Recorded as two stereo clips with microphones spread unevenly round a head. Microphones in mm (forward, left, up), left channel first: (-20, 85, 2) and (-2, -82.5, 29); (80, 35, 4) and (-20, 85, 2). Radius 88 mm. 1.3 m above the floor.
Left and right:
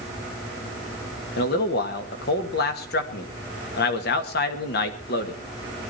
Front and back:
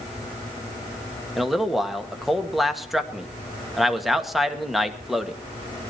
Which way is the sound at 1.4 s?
65° left.